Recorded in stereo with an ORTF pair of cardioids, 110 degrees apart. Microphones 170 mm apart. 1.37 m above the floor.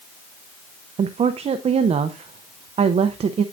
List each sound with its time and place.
1.0 s a woman speaking: 35° right, 0.6 m